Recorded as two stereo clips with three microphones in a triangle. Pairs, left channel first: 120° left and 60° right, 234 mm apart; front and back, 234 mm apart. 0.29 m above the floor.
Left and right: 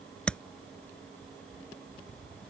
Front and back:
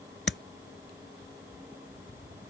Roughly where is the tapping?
Ahead left.